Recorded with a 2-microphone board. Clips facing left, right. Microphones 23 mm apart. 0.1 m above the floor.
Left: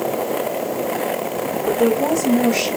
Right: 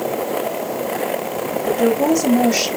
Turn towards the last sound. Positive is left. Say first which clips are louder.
# right 1 dB
turn(degrees=-70)  # may be behind; listen again after turning